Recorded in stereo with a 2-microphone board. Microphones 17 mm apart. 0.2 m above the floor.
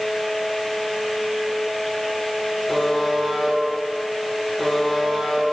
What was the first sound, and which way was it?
A buzzer, 15° left (ahead or behind).